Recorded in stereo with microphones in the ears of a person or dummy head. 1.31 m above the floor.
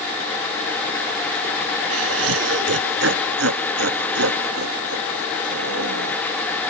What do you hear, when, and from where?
1.9 s laughter: 85° right; by 6.2 s 80° right